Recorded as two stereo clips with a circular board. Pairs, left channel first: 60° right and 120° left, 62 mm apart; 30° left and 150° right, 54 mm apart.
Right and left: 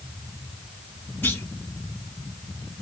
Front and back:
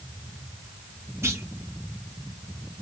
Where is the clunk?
115° right, 1.7 m.